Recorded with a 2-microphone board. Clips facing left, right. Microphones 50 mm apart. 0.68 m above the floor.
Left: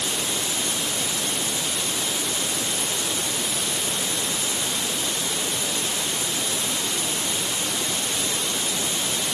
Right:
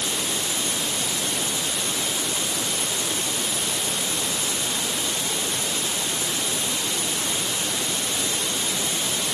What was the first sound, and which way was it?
Only background noise.